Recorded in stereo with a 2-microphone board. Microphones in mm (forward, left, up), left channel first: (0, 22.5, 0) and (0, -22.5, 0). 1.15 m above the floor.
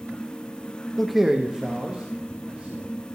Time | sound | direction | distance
1.0 | a man speaking | 10° left (ahead or behind) | 0.6 m